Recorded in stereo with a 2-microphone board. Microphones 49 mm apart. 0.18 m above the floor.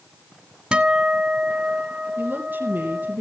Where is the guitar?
20° right (ahead or behind), 0.9 m.